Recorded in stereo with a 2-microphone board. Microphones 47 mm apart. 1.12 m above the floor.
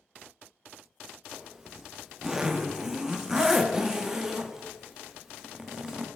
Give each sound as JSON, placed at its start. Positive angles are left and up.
{"t": 1.3, "sound": "a zipper", "side_deg": -10, "distance_m": 0.5}